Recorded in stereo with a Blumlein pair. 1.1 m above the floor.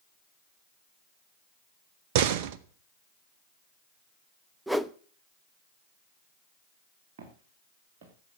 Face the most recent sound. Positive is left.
turn(degrees=-50)